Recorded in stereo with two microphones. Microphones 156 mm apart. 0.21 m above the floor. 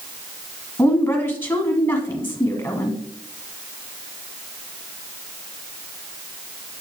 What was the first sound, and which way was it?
A woman speaking, 15° left (ahead or behind).